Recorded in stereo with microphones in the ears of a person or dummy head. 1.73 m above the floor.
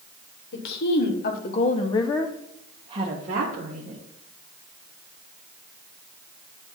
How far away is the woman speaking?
About 1.8 m.